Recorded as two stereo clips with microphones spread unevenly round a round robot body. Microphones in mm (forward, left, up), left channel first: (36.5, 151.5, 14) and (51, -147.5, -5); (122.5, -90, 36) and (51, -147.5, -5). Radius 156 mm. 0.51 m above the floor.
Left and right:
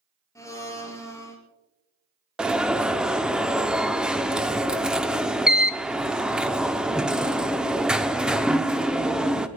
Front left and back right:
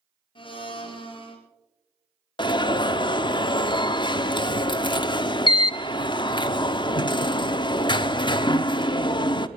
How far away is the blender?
About 4 m.